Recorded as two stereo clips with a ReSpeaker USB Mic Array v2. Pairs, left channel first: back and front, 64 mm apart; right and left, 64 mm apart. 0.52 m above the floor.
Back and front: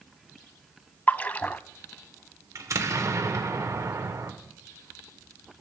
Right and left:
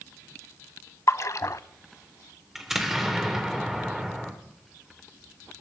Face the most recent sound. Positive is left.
turn(degrees=5)